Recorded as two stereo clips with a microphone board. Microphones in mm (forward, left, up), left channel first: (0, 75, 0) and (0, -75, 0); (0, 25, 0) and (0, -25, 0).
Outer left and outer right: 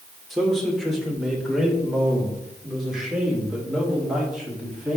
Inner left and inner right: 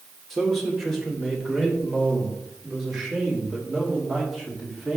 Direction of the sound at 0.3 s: Centre (ahead or behind).